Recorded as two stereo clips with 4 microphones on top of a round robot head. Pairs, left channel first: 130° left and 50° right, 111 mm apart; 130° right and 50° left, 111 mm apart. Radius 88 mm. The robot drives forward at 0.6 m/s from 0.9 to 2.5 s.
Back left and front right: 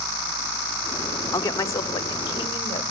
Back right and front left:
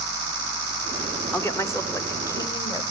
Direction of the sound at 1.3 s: 175° left.